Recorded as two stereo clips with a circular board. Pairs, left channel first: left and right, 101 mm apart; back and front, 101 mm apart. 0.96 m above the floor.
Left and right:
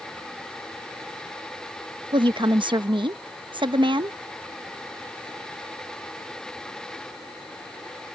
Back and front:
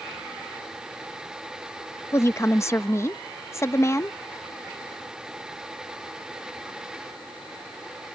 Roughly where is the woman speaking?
Behind right.